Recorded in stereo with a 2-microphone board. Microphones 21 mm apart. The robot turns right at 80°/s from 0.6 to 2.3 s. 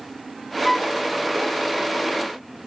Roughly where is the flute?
Centre.